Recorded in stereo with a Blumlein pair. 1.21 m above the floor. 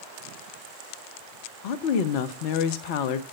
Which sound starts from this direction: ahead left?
A woman speaking, at 1.6 s.